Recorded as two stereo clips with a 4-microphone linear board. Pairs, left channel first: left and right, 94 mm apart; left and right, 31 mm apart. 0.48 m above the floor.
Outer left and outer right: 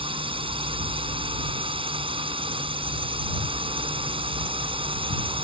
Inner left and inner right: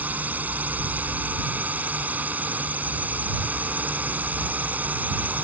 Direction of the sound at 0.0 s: 70° right (ahead or behind).